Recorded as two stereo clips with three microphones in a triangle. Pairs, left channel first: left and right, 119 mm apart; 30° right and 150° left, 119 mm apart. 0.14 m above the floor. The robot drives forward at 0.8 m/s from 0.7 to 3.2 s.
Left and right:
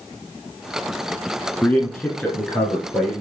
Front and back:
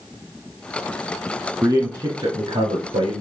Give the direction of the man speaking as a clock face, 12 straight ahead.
7 o'clock.